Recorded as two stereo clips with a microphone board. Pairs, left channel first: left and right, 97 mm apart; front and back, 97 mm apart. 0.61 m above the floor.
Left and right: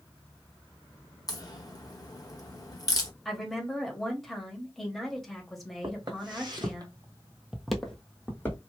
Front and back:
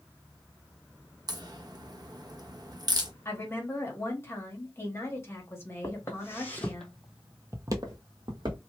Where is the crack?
135° left, 0.7 m.